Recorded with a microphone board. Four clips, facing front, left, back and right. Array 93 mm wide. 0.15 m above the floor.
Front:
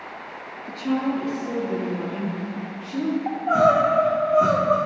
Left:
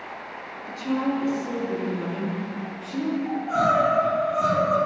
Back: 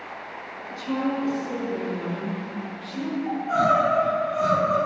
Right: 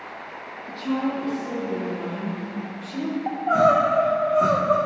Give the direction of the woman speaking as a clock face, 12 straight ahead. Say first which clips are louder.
Even, front 2 dB; 12 o'clock.